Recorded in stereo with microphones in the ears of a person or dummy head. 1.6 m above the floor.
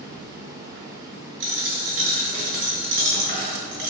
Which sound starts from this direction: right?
A dropped coin, at 1.4 s.